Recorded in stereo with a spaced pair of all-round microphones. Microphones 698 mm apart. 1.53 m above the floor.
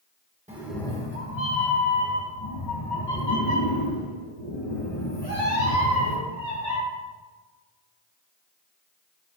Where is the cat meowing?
10° right (ahead or behind), 1.1 m; by 6.8 s 80° left, 5 m.